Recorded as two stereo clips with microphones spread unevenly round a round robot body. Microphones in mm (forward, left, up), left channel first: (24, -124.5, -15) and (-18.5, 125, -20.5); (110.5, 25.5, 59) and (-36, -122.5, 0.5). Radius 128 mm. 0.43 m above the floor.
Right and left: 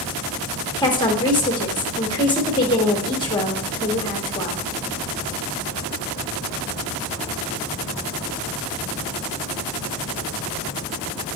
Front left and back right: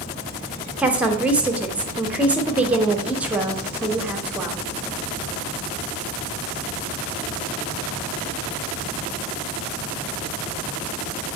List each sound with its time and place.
0.8 s a woman speaking: 125° right, 0.9 m